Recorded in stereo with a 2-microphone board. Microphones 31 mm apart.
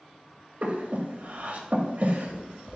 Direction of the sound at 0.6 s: 50° right (ahead or behind).